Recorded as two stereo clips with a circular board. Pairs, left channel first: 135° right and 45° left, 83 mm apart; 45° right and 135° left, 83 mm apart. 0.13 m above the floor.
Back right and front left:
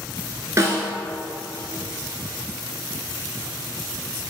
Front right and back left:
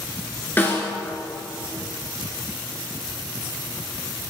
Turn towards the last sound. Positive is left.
turn(degrees=10)